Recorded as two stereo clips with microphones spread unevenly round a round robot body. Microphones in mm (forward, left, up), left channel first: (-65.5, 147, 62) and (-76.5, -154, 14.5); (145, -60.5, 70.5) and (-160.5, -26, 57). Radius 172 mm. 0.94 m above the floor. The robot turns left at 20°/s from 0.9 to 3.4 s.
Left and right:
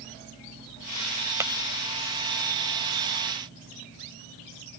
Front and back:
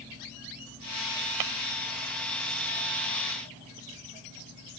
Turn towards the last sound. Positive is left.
turn(degrees=145)